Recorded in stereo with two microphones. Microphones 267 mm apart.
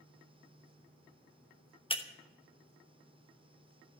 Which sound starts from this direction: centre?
Breaking glass, at 1.9 s.